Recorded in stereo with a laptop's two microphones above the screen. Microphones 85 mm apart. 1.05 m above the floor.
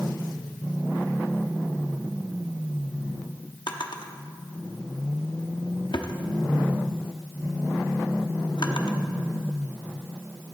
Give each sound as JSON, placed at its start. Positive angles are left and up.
{"t": 3.7, "sound": "a drawer", "side_deg": 65, "distance_m": 0.8}